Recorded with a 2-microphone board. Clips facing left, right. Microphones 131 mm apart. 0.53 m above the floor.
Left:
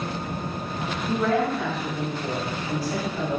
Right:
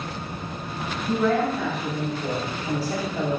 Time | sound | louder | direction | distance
1.1 | a woman speaking | right 1 dB | 5° right (ahead or behind) | 1.3 m